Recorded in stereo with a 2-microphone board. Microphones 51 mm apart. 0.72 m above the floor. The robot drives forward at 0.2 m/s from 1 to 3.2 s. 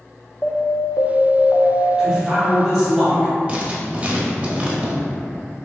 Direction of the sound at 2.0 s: 15° right (ahead or behind).